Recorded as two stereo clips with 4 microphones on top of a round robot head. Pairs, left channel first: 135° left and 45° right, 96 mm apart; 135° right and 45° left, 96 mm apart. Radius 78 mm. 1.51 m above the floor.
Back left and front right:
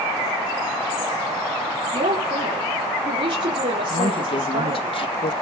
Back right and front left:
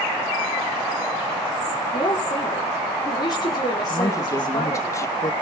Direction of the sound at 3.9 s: 165° left.